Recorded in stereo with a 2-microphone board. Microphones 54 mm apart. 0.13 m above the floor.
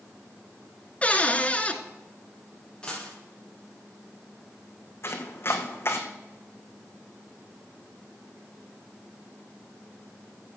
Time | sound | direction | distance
1.0 | a cupboard door | 25° left (ahead or behind) | 1.1 m
2.8 | a dropped coin | 15° left (ahead or behind) | 6 m
5.0 | chopping | 50° left (ahead or behind) | 1.6 m